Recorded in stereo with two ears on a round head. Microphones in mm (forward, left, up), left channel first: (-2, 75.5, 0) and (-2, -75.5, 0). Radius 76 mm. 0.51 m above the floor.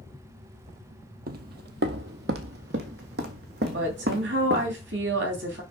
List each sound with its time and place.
1.3 s footsteps: 60° right (ahead or behind), 0.9 m
3.7 s a woman speaking: 75° right (ahead or behind), 3.5 m